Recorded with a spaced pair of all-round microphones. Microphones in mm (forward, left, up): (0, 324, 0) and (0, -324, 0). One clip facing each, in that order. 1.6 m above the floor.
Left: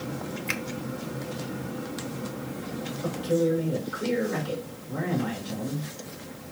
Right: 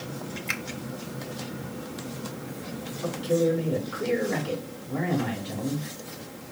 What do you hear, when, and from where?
0.5 s a finger snap: 5° left (ahead or behind), 0.7 m
3.0 s a man speaking: 75° right (ahead or behind), 3.5 m